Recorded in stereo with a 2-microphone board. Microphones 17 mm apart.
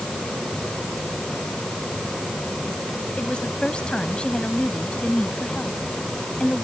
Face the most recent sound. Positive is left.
turn(degrees=55)  # may be behind; listen again after turning